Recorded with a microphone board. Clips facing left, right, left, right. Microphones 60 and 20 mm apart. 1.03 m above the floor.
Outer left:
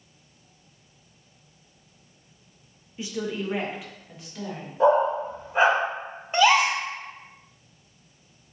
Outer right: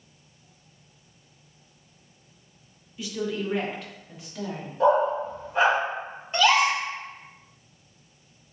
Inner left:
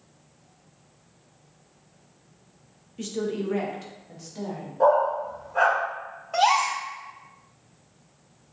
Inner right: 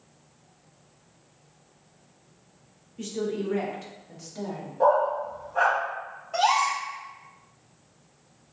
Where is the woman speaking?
30° left (ahead or behind), 0.7 m; by 4.7 s 5° right (ahead or behind), 1.4 m.